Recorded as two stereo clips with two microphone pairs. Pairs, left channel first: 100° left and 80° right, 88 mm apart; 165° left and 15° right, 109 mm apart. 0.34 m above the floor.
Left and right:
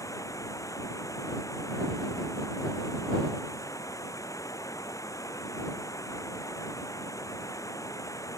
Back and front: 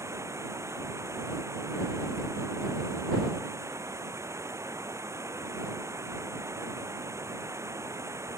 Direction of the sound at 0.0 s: 50° left.